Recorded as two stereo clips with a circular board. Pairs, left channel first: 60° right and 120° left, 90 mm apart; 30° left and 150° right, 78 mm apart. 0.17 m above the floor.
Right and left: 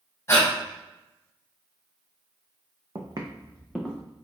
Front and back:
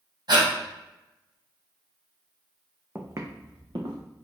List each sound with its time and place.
0.3 s breathing: 125° right, 2.0 m
3.0 s footsteps: 150° left, 0.9 m; by 4.0 s 150° right, 1.5 m